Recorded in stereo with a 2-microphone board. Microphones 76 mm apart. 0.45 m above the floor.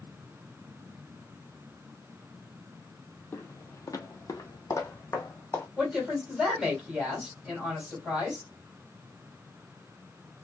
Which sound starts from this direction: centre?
A woman speaking, at 5.8 s.